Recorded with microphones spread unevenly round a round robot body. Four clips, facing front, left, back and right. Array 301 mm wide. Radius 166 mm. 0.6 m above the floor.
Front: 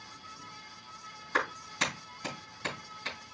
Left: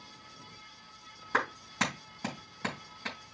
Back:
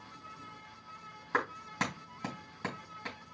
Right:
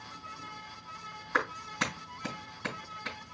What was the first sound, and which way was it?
A clap, 145° left.